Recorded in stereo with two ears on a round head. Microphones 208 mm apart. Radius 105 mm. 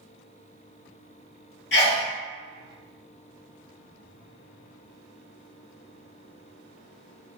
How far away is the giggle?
No giggle in this recording.